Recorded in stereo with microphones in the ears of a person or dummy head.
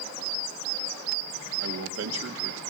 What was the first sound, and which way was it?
A man speaking, 80° right.